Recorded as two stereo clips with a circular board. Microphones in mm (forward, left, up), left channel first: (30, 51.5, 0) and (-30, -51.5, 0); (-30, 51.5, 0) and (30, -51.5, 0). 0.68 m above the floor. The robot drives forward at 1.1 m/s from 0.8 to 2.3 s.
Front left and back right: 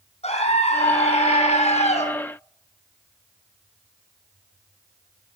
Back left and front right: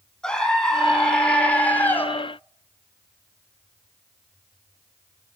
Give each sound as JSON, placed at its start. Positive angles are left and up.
{"t": 0.2, "sound": "a scream", "azimuth_deg": 35, "distance_m": 6.0}